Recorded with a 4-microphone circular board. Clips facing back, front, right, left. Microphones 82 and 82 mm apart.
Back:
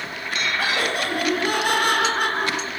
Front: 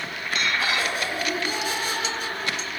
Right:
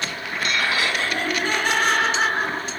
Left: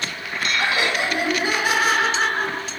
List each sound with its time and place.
0.6 s laughter: 160° left, 3.5 m; by 2.8 s 170° right, 3.5 m